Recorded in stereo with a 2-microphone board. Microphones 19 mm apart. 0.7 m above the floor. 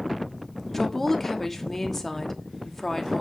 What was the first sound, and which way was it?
A woman speaking, 15° left (ahead or behind).